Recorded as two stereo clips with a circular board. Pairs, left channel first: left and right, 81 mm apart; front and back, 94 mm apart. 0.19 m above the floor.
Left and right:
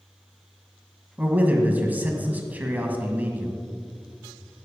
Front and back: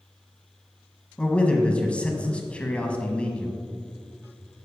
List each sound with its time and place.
1.2 s a man speaking: 55° right, 1.4 m